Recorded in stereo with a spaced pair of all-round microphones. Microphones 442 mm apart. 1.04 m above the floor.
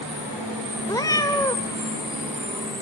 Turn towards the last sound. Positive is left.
turn(degrees=10)  # may be behind; listen again after turning